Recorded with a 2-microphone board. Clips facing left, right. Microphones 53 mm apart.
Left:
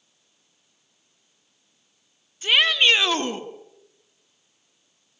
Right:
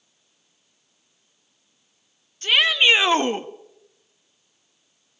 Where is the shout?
5° left (ahead or behind), 1.1 m; by 3.5 s 40° right (ahead or behind), 1.1 m.